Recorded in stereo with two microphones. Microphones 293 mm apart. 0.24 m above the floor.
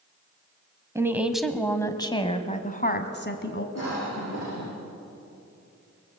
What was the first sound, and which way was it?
A woman speaking, 10° right (ahead or behind).